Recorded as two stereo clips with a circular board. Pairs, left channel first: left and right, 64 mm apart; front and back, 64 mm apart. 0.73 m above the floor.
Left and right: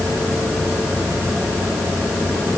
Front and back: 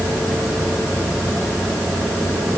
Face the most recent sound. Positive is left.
No sound to turn to.